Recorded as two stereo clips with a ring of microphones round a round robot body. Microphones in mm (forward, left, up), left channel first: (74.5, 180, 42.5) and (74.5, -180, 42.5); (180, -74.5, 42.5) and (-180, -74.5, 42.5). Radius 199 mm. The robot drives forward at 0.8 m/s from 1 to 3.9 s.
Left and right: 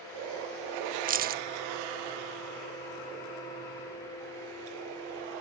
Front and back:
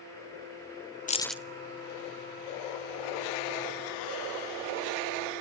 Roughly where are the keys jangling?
Ahead right.